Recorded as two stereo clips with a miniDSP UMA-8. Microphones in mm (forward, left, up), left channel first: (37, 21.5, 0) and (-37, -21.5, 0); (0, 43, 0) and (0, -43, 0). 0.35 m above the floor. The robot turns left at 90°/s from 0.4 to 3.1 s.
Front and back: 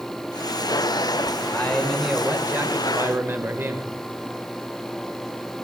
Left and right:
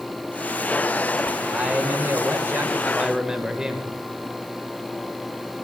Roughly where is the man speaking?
Ahead.